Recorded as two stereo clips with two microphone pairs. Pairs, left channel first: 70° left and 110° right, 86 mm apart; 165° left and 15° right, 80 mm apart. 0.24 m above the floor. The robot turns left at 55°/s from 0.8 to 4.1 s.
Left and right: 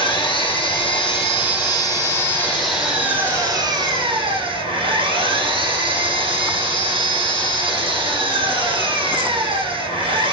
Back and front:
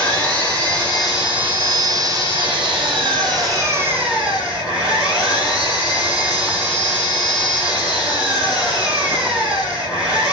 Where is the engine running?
85° left, 8 m; by 10.3 s 95° right, 8 m.